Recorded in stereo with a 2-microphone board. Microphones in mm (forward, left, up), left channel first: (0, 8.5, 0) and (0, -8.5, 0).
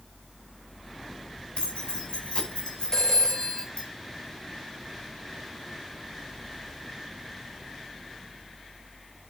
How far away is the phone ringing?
About 3 m.